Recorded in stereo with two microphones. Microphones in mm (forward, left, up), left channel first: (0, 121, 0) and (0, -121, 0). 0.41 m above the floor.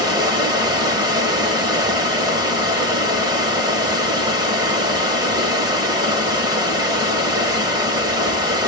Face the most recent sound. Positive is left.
turn(degrees=-15)  # may be behind; listen again after turning